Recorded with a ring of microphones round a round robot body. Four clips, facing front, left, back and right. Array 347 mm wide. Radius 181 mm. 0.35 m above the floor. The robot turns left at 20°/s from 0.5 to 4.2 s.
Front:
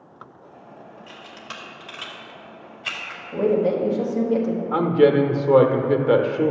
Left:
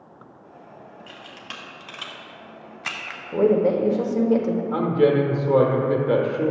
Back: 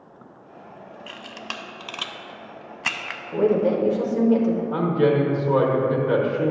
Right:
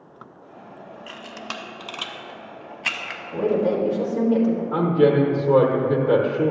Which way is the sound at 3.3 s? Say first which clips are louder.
Left 3 dB, even; 110° left.